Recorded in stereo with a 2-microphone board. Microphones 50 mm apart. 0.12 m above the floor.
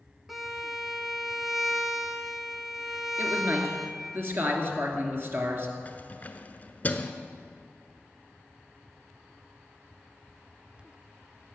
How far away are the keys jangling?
About 1.0 m.